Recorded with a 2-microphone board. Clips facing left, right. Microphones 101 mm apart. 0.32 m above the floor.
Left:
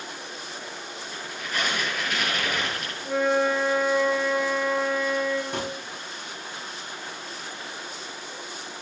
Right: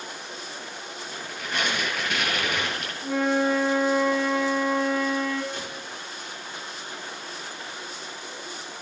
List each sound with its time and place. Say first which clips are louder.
1.1 s tearing paper: right 1 dB; 60° right (ahead or behind), 3.5 m
3.0 s a flute: left 1 dB; 55° right (ahead or behind), 2.5 m
5.5 s a gunshot: left 5 dB; 55° left (ahead or behind), 0.6 m